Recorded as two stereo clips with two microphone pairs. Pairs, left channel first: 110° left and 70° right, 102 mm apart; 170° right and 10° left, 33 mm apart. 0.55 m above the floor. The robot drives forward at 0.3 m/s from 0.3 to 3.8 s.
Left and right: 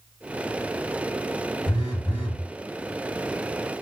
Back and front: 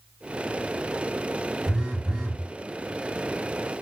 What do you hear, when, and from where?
1.7 s a phone buzzing: 90° left, 2.5 m; by 2.4 s 95° left, 2.5 m